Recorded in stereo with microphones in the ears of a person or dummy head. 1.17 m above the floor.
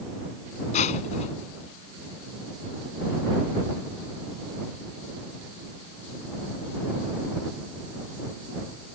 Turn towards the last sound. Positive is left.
turn(degrees=40)  # may be behind; listen again after turning